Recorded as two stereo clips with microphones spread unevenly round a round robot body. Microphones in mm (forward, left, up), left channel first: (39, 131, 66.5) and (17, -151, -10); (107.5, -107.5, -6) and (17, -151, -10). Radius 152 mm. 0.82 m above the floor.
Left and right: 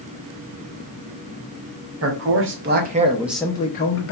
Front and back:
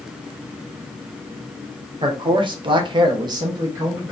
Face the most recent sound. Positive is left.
turn(degrees=130)